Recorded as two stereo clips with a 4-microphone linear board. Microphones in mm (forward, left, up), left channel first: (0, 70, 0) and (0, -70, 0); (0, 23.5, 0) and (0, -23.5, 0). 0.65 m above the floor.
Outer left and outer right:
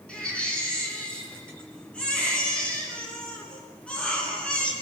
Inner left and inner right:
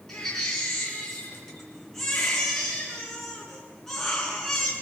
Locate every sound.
0.1 s a baby crying: 5° left (ahead or behind), 7 m